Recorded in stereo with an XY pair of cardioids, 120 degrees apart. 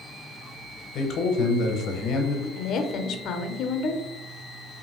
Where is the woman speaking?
60° left, 0.6 m.